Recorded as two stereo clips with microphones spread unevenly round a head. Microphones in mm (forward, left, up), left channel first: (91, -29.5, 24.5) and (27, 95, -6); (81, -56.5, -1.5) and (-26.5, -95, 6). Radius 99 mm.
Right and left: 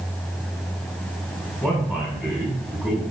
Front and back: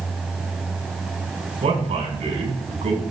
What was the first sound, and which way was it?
A man speaking, 165° right.